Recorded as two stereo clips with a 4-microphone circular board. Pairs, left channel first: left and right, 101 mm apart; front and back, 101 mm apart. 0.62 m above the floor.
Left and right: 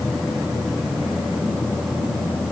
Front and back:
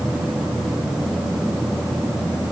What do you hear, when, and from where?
Only background noise.